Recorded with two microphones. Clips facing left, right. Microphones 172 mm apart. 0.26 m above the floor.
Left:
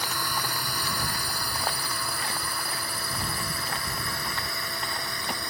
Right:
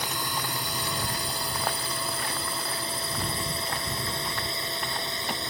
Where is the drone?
20° right (ahead or behind); by 5.5 s 25° right (ahead or behind).